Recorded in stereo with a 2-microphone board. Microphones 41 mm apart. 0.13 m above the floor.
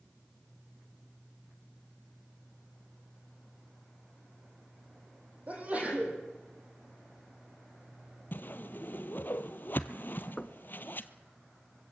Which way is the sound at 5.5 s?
35° right (ahead or behind).